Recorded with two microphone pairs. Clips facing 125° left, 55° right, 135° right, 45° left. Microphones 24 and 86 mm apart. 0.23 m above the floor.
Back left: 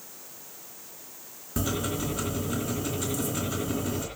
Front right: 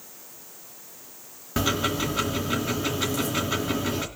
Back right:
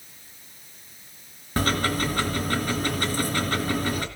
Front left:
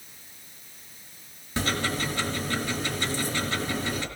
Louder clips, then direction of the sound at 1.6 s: Front right 5 dB, back right 4 dB; 105° right.